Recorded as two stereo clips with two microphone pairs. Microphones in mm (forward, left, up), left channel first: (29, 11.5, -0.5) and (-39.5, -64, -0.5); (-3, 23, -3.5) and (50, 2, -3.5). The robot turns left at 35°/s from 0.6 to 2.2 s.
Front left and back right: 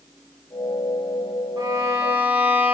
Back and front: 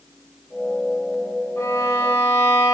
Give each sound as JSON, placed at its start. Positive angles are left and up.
{"t": 1.6, "sound": "a violin", "azimuth_deg": 180, "distance_m": 1.0}